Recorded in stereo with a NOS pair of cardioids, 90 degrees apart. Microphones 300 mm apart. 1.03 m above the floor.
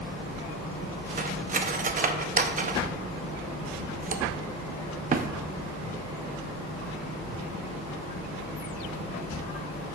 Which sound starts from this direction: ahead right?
Cutlery clinking, at 1.2 s.